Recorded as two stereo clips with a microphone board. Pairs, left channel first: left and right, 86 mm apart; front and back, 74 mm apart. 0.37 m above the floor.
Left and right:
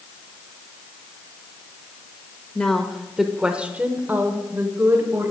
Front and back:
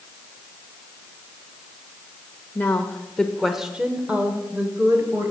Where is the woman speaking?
25° left, 0.9 m; by 5.3 s 140° right, 1.5 m.